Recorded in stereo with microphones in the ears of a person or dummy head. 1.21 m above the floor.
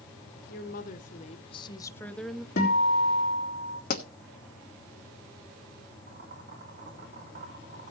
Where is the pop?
50° left (ahead or behind), 1.1 m.